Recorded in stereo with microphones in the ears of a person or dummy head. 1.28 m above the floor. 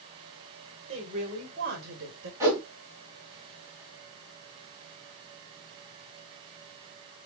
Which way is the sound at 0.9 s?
35° right (ahead or behind).